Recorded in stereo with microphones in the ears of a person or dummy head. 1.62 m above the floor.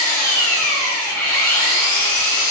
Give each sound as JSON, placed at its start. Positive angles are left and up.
{"t": 0.0, "sound": "an engine running", "side_deg": 10, "distance_m": 0.8}